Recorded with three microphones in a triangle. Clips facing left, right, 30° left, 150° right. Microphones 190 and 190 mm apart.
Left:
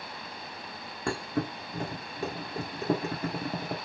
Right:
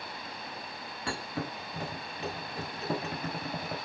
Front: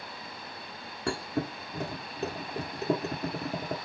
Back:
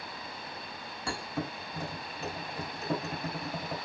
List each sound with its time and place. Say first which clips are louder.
1.1 s a thud: left 6 dB, front 5 dB; 55° left, 1.1 m